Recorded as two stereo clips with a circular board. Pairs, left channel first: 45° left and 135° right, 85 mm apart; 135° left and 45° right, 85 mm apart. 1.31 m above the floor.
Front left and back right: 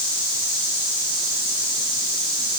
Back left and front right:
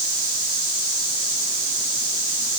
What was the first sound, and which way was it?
Only background noise.